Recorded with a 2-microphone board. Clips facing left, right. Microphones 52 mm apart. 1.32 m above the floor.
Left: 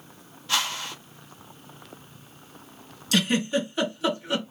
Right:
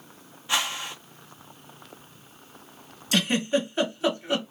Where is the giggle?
30° right (ahead or behind), 1.5 m.